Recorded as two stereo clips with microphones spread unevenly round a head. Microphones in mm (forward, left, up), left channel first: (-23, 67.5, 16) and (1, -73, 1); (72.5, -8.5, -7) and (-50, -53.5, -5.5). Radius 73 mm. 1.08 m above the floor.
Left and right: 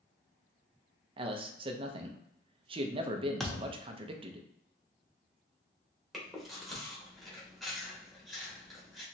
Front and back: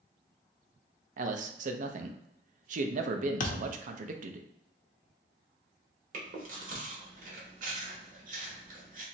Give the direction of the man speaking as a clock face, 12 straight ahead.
4 o'clock.